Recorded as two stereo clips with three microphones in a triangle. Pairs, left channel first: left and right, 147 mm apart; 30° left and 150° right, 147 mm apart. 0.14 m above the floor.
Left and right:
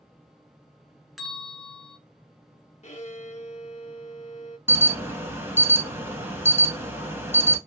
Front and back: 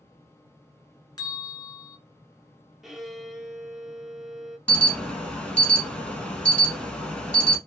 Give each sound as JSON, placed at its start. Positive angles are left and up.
{"t": 1.2, "sound": "a bell", "azimuth_deg": 0, "distance_m": 1.0}
{"t": 2.8, "sound": "a violin", "azimuth_deg": 120, "distance_m": 0.6}
{"t": 4.7, "sound": "an alarm", "azimuth_deg": -45, "distance_m": 0.8}